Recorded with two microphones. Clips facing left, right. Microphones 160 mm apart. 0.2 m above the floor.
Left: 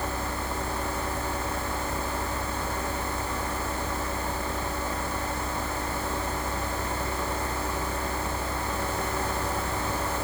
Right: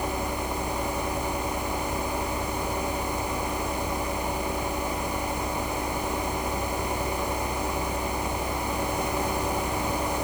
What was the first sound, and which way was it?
Only background noise.